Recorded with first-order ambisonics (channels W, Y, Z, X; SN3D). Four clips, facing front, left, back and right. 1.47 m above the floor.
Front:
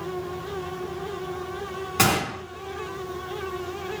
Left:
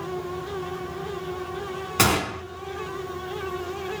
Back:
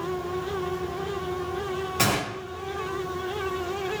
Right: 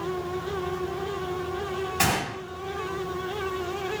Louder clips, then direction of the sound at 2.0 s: Left 5 dB, front 4 dB; 60° left.